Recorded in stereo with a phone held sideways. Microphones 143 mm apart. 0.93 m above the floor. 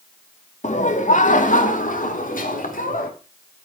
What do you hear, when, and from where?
0.6 s laughter: 55° left (ahead or behind), 2.0 m; by 3.1 s 75° left (ahead or behind), 4 m